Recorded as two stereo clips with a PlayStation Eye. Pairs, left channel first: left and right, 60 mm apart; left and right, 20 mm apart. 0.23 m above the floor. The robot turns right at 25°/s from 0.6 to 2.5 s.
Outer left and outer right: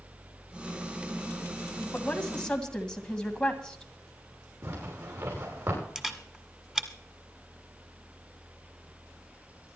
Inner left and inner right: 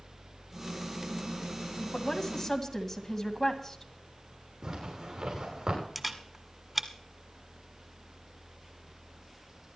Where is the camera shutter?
10° right (ahead or behind), 1.6 m.